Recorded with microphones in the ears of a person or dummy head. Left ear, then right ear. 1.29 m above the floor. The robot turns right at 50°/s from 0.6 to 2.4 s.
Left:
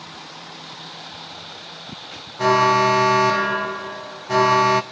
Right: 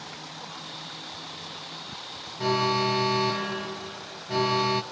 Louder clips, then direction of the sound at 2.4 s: Left 9 dB; 45° left (ahead or behind).